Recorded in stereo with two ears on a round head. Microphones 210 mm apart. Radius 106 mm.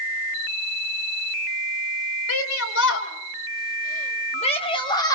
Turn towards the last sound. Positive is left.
turn(degrees=15)  # may be behind; listen again after turning